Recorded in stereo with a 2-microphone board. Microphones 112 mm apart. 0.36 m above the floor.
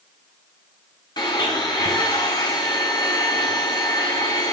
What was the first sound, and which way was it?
A blender, 40° left (ahead or behind).